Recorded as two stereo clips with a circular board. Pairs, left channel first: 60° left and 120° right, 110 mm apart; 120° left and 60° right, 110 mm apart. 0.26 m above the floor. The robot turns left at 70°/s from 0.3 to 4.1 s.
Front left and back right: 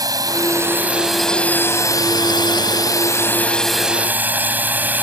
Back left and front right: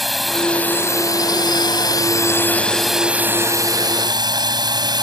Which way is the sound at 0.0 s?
150° right.